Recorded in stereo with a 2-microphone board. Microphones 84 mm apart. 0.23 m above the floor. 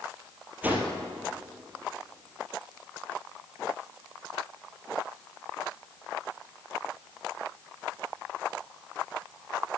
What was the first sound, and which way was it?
A whoosh, 20° right (ahead or behind).